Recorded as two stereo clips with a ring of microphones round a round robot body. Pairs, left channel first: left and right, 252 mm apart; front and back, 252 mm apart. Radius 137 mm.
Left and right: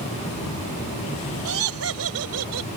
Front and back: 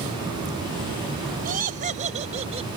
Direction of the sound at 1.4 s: 125° right.